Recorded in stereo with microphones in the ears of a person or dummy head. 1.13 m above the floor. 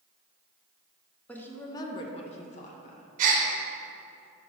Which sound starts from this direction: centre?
A woman speaking, at 1.3 s.